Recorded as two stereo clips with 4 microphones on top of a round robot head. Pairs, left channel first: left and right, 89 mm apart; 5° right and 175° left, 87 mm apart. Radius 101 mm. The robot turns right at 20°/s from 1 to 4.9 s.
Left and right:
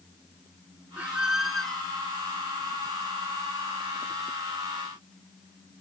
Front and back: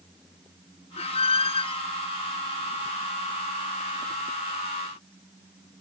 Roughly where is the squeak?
Ahead.